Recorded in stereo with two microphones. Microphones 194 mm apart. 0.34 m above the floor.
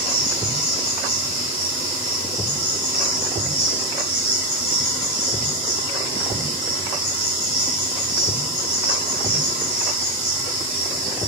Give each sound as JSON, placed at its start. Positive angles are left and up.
{"t": 0.0, "sound": "an insect", "side_deg": 35, "distance_m": 1.0}